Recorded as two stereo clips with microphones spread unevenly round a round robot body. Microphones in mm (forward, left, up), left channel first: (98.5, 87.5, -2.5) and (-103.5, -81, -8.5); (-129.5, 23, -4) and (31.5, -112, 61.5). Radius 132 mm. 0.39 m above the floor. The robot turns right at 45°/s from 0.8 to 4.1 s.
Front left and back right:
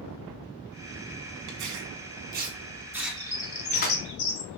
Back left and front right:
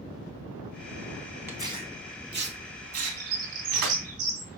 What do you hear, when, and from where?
1.5 s tearing paper: 125° right, 2.5 m; by 3.9 s 15° right, 2.5 m
2.9 s a bird: 55° right, 3 m; by 4.6 s 5° right, 3 m